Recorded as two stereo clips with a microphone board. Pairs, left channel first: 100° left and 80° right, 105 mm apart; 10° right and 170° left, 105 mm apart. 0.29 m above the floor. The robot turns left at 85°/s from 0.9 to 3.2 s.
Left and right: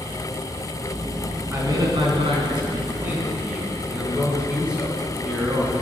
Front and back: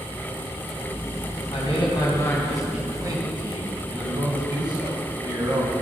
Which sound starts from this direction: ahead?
A man speaking, at 1.5 s.